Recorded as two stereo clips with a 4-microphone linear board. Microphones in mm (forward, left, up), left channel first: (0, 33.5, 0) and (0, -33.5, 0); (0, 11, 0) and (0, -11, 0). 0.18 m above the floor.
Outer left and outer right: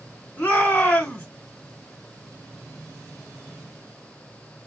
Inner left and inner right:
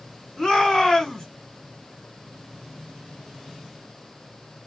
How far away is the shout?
About 1.9 m.